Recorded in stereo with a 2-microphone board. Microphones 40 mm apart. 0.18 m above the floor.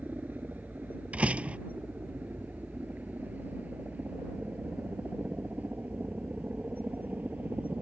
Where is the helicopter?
45° right (ahead or behind).